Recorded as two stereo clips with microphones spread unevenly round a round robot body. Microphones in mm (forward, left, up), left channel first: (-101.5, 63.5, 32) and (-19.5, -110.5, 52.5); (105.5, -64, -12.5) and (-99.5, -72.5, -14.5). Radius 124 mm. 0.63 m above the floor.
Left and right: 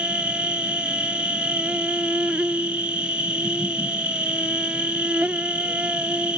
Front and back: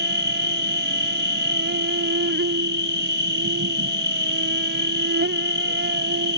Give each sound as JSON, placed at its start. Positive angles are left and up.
{"t": 0.0, "sound": "an insect", "azimuth_deg": -145}